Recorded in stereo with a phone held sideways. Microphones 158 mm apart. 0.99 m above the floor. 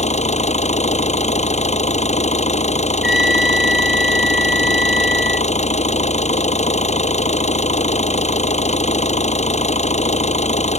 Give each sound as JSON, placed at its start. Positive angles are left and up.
{"t": 0.0, "sound": "an engine running", "side_deg": 45}
{"t": 3.0, "sound": "a trumpet", "side_deg": -5}